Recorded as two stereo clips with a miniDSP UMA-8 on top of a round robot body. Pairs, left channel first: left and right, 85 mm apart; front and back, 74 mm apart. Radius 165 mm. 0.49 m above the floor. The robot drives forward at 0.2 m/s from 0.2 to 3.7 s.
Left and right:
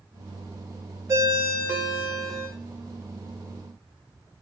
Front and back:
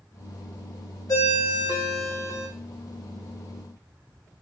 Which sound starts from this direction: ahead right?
A ringtone, at 1.1 s.